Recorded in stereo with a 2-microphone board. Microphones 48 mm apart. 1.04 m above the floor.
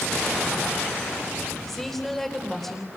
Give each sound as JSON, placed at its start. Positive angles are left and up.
{"t": 1.7, "sound": "a woman speaking", "side_deg": 5, "distance_m": 3.5}